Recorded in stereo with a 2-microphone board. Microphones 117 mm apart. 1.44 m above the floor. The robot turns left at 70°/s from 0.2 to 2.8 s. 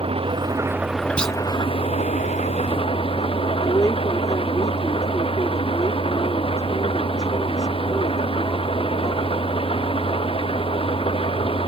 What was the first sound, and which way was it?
An engine running, 125° right.